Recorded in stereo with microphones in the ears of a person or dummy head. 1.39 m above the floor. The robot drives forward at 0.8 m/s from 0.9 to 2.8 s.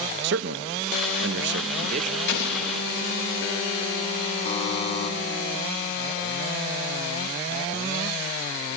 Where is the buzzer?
30° left (ahead or behind), 3 m.